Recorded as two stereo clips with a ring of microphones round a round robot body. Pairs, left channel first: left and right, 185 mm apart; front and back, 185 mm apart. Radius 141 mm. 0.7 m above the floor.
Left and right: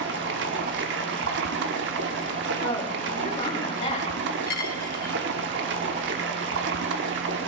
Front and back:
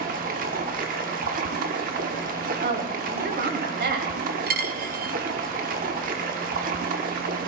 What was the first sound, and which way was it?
Running water, 125° right.